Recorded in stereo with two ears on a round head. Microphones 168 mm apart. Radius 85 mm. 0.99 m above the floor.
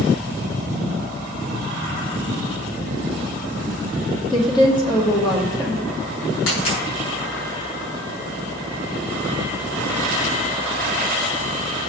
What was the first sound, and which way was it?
A woman speaking, 25° left (ahead or behind).